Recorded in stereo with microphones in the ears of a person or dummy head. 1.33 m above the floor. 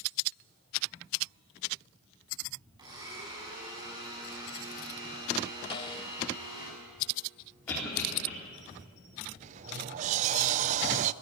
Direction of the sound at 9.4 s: 40° right (ahead or behind).